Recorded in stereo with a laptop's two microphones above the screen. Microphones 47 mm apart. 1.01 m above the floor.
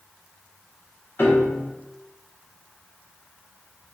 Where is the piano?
50° left (ahead or behind), 0.7 m.